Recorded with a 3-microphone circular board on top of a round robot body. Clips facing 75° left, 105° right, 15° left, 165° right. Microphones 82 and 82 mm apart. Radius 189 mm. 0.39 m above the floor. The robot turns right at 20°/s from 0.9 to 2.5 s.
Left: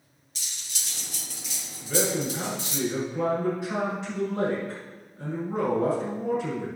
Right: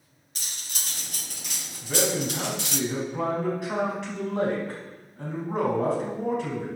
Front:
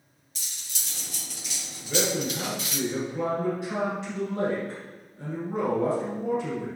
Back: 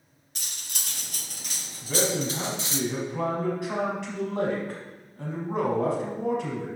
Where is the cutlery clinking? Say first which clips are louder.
Right 2 dB, back 3 dB; 140° right, 0.6 m; by 2.8 s 110° right, 0.6 m.